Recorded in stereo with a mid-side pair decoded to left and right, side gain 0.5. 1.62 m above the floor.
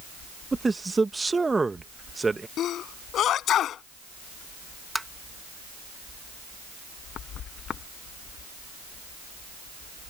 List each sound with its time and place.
0.5 s a man speaking: 20° right
2.6 s a sneeze: 60° left
5.0 s tapping: 10° right